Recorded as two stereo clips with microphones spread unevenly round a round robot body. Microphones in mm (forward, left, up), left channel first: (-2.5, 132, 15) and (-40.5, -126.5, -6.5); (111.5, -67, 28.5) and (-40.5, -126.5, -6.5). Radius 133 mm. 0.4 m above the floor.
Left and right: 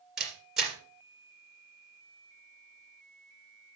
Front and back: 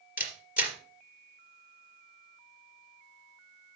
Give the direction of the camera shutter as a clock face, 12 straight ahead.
12 o'clock.